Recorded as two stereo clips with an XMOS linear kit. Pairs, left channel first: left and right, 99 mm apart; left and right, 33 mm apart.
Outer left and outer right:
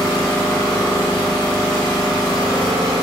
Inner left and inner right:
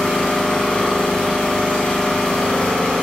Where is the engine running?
40° left (ahead or behind), 0.8 m.